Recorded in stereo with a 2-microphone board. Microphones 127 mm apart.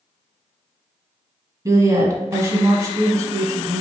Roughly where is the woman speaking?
Right.